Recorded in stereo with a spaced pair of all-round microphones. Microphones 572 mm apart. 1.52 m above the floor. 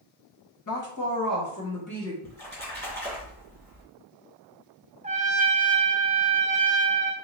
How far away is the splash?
About 1.9 m.